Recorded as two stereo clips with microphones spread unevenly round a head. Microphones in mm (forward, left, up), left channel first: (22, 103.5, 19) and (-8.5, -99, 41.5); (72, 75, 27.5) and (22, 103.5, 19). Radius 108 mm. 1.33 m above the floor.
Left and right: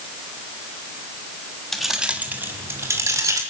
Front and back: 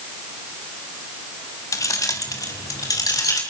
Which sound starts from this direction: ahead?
Keys jangling, at 1.7 s.